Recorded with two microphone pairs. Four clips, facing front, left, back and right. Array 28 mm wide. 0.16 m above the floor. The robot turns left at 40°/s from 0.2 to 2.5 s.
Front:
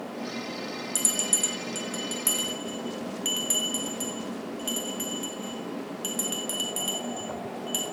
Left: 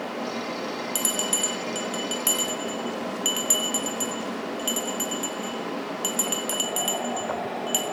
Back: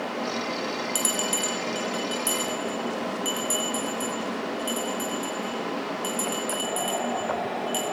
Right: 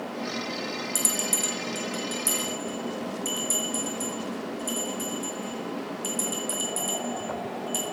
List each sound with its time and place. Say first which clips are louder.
0.9 s a bell: left 2 dB, even; 140° left, 2.0 m; by 7.8 s 80° left, 2.0 m